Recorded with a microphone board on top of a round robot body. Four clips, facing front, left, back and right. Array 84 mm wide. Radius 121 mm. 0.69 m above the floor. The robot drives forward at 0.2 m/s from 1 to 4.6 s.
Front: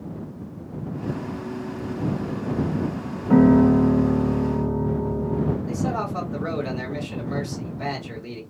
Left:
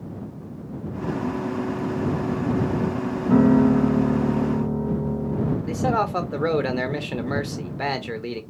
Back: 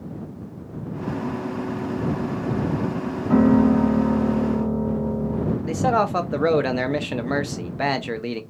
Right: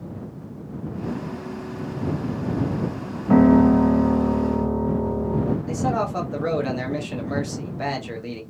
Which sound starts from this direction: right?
A piano, at 3.3 s.